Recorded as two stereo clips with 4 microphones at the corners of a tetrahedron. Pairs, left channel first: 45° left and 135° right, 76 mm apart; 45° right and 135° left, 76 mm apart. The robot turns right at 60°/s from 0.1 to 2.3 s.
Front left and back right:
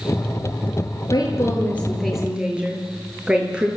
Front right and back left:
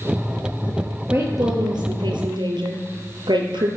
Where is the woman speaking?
75° left, 5.5 m; by 3.7 s 145° left, 5.5 m.